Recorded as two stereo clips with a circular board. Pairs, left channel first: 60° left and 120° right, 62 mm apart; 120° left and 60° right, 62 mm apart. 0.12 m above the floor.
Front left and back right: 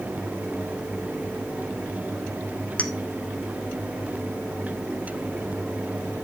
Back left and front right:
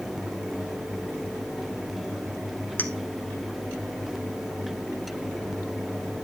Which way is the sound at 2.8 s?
110° left.